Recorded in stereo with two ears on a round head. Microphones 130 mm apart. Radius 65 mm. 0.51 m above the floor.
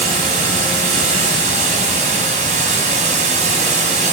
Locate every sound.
0.0 s running water: 55° right (ahead or behind), 3 m